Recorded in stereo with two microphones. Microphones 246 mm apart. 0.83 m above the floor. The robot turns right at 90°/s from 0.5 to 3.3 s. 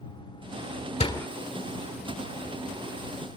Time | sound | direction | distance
1.0 | a door slam | 25° left (ahead or behind) | ?